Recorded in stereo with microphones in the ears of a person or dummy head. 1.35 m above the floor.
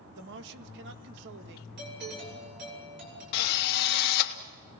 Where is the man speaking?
65° right (ahead or behind), 2.0 m.